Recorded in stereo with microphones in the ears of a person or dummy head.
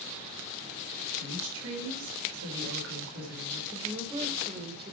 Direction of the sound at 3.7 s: 30° right (ahead or behind).